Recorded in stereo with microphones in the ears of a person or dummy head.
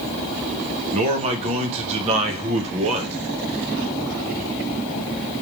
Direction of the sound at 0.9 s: 40° right (ahead or behind).